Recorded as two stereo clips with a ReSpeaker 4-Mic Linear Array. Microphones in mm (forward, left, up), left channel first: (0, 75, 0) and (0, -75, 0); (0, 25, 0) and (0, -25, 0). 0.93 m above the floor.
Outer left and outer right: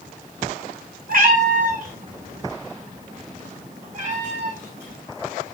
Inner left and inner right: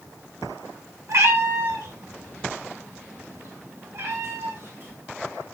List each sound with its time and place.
1.1 s a cat meowing: 70° right (ahead or behind), 1.6 m; by 5.0 s 60° right (ahead or behind), 5 m